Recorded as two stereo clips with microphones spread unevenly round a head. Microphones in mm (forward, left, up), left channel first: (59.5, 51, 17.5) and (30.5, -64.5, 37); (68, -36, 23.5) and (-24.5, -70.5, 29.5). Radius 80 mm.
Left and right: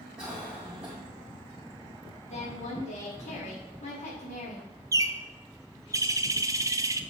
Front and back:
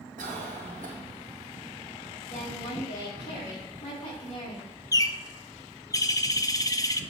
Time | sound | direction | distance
0.2 | a cough | 175° left | 2 m
2.3 | a woman speaking | 45° left | 3 m
4.9 | a bird | 40° right | 0.6 m